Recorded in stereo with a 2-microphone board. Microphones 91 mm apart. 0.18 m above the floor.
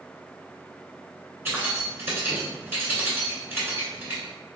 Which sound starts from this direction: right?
Keys jangling, at 1.4 s.